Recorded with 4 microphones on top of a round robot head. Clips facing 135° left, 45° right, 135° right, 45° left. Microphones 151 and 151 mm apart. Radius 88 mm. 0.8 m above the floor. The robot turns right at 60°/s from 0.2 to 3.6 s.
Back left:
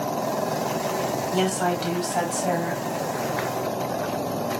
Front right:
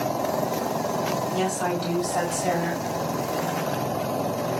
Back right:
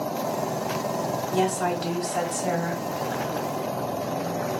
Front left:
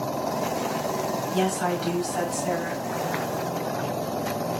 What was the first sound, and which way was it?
A woman speaking, 170° left.